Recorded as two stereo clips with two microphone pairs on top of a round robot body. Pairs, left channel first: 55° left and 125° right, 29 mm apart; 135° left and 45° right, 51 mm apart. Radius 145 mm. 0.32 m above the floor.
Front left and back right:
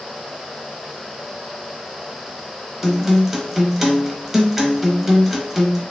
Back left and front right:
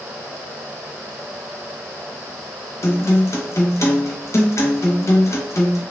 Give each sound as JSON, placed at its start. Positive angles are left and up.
{"t": 2.8, "sound": "a guitar", "azimuth_deg": 155, "distance_m": 0.7}